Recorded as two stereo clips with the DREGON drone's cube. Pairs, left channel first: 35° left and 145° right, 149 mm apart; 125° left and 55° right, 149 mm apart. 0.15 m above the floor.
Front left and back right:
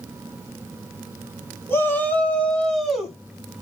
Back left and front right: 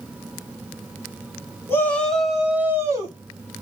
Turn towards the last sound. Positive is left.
turn(degrees=-60)